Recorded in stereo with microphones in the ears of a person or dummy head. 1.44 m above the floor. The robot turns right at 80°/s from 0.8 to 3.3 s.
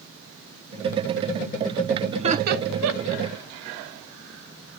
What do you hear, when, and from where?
2.1 s laughter: 25° right (ahead or behind), 0.8 m; by 3.2 s 60° right (ahead or behind), 0.8 m